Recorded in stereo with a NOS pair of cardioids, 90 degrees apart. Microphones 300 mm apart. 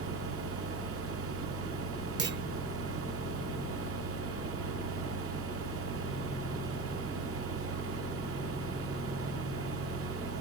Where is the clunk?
40° right, 1.0 m.